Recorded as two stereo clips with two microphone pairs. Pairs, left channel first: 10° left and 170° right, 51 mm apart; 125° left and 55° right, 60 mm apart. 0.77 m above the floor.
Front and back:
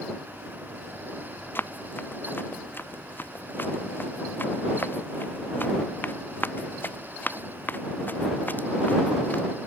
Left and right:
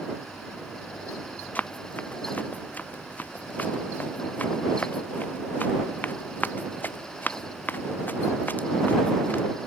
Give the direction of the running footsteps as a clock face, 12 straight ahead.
10 o'clock.